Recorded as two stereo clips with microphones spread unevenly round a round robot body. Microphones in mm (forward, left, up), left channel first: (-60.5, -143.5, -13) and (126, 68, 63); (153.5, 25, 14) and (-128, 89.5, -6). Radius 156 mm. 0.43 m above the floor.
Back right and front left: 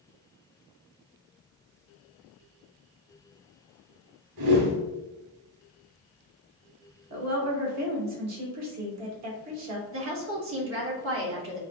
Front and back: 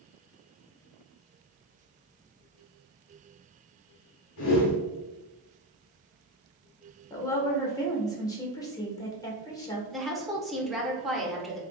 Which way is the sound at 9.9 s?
85° left.